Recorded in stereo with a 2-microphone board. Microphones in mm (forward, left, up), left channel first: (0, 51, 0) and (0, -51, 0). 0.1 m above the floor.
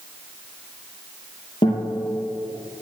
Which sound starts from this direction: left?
A guitar, at 1.6 s.